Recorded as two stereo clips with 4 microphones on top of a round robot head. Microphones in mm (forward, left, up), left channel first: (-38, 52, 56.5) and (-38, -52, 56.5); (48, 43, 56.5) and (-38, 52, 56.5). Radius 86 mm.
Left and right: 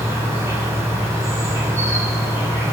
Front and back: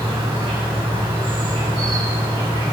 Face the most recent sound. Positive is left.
turn(degrees=-150)